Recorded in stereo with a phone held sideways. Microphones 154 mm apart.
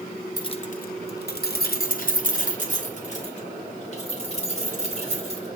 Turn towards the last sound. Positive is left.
turn(degrees=40)  # may be behind; listen again after turning